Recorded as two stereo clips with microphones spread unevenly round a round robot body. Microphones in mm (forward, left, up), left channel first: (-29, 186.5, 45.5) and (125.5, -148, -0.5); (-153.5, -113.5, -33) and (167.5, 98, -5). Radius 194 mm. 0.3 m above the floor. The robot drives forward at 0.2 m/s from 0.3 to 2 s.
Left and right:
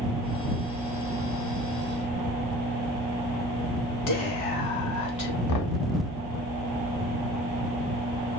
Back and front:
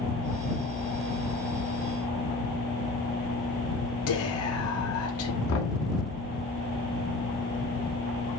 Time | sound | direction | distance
4.1 | whispering | 160° left | 3.5 m
5.5 | knocking | 160° left | 2 m